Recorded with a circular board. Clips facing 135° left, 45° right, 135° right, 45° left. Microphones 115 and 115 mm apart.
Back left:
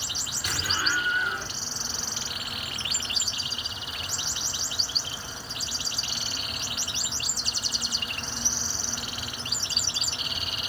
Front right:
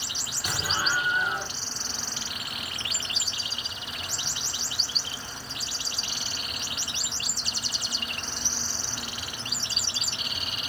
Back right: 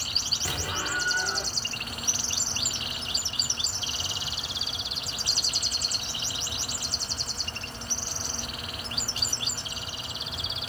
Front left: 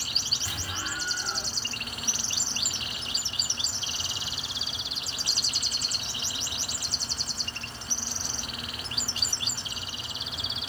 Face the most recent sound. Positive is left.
turn(degrees=-120)